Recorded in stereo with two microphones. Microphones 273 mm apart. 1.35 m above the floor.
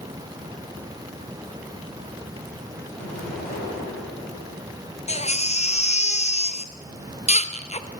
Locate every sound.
3.0 s an explosion: 10° left (ahead or behind), 10 m
5.1 s a baby crying: 25° left (ahead or behind), 0.8 m